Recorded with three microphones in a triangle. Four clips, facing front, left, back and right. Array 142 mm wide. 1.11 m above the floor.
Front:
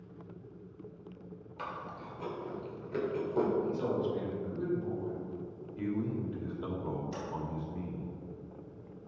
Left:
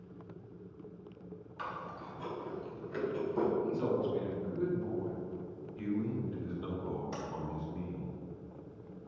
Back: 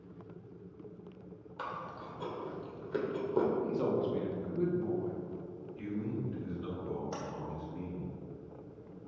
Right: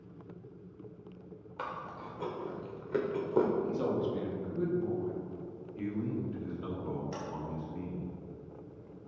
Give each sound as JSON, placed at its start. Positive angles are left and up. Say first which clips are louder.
{"t": 1.6, "sound": "chewing", "louder": "right 2 dB, back 1 dB", "azimuth_deg": -105, "distance_m": 1.8}
{"t": 3.6, "sound": "a man speaking", "louder": "even, back 1 dB", "azimuth_deg": -145, "distance_m": 2.5}
{"t": 5.8, "sound": "a man speaking", "louder": "even, front 4 dB", "azimuth_deg": -15, "distance_m": 2.5}
{"t": 7.1, "sound": "tapping", "louder": "even, even", "azimuth_deg": 180, "distance_m": 3.0}